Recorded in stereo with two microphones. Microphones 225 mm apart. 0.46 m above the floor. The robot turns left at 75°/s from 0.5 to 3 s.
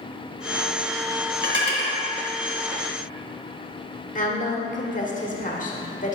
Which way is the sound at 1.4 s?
50° right (ahead or behind).